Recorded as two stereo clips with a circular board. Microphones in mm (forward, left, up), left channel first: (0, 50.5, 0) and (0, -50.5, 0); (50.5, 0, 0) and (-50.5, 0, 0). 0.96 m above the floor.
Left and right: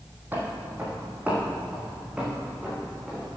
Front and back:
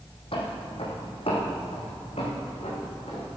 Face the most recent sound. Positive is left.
turn(degrees=-5)